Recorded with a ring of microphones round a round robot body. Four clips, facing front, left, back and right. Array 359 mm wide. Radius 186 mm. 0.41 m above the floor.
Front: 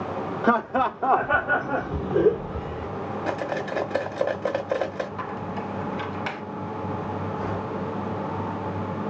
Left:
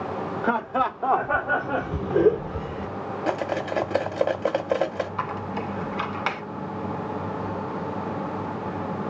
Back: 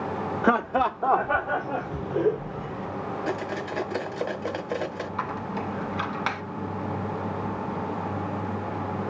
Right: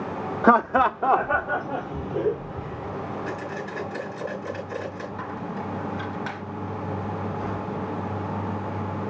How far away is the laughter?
About 1.0 m.